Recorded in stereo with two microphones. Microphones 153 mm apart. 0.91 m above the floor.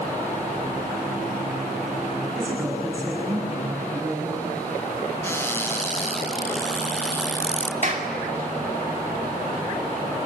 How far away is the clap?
About 2.5 m.